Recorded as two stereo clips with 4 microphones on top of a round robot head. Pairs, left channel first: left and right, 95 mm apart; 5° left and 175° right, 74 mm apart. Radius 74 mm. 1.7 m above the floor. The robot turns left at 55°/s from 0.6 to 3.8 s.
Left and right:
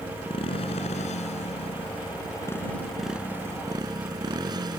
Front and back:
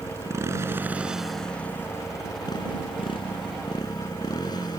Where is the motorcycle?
130° left; by 4.8 s 45° right.